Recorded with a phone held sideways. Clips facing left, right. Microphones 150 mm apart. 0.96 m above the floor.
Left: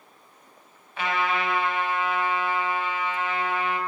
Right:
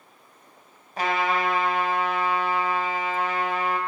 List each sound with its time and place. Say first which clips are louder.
1.0 s a trumpet: right 2 dB; 40° right (ahead or behind), 2 m